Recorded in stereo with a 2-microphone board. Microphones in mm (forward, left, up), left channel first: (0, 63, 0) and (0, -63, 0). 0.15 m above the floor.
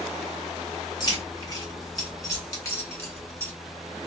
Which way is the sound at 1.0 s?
35° left (ahead or behind).